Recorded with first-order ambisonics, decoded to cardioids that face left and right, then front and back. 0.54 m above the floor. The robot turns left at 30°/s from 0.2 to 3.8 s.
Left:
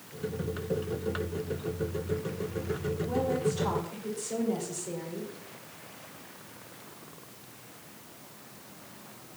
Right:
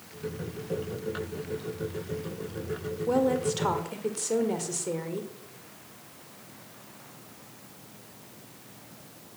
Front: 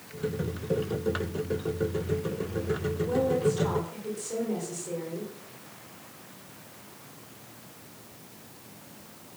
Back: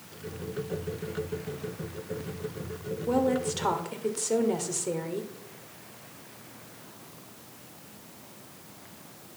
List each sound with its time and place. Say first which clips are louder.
3.1 s a woman speaking: right 5 dB, even; 115° right, 2 m; by 5.3 s 135° right, 2 m